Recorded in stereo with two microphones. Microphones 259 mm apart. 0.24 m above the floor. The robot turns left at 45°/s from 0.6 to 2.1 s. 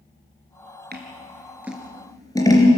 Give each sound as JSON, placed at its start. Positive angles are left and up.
{"t": 0.9, "sound": "scissors", "side_deg": -40, "distance_m": 3.0}